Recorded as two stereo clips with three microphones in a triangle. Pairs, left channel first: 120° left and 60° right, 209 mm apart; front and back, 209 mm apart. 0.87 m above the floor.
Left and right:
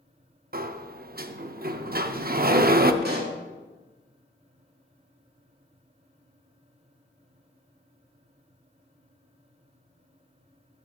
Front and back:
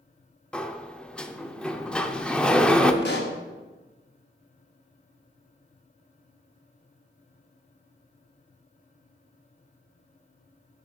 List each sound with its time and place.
0.5 s a sliding door: 85° right, 0.5 m
3.0 s a pop: 25° right, 1.2 m